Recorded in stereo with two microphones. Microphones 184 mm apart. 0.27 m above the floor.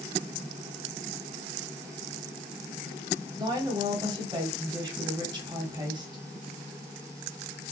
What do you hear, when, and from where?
3.4 s a woman speaking: 25° right (ahead or behind), 1.5 m